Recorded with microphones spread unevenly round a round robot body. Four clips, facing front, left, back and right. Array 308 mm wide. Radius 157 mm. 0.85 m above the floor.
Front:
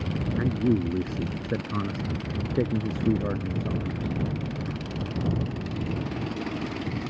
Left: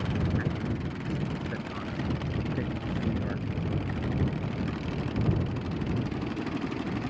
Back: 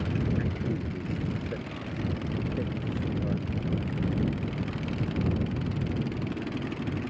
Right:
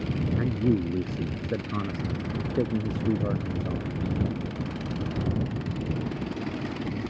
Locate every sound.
0.4 s a man speaking: 30° right; by 4.2 s 20° right